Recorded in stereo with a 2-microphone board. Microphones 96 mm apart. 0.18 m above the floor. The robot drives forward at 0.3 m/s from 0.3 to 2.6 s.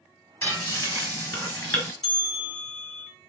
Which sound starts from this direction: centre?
A bell, at 2.0 s.